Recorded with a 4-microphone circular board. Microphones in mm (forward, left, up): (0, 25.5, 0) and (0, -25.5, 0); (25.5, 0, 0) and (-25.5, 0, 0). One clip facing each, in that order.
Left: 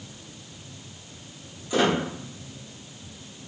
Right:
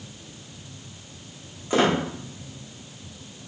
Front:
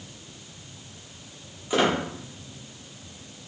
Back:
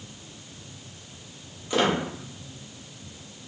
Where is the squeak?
80° right, 0.8 m.